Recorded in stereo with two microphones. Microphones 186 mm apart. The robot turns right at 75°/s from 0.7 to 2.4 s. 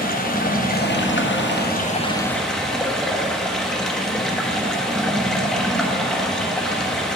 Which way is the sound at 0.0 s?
50° left.